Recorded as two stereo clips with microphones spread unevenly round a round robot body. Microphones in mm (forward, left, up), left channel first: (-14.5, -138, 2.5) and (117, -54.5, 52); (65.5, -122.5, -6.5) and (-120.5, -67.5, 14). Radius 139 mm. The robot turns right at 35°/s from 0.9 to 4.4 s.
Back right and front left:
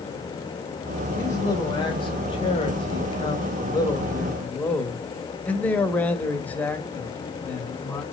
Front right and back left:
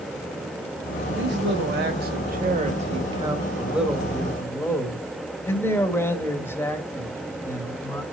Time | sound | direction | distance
1.2 | a man speaking | 160° left | 2 m